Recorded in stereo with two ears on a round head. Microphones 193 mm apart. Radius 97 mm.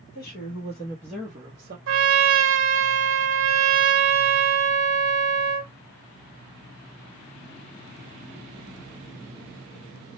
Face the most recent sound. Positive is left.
turn(degrees=-60)  # may be behind; listen again after turning